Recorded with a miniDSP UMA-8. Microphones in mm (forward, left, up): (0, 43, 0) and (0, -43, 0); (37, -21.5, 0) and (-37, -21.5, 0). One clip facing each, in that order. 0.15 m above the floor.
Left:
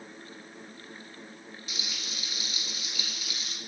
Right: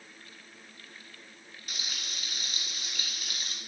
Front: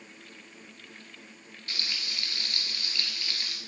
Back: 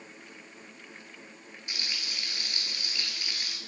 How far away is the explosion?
No explosion in this recording.